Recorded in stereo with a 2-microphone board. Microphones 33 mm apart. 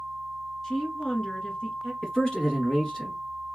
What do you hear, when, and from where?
0.6 s a woman speaking: 20° left (ahead or behind), 1.5 m
2.0 s a man speaking: 20° left (ahead or behind), 1.5 m